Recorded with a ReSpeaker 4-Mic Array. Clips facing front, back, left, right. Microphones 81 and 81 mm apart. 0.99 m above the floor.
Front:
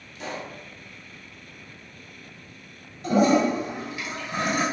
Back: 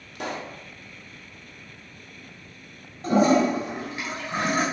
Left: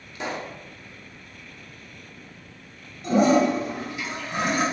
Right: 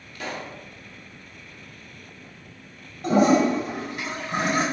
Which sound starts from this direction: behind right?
A toilet flushing, at 3.0 s.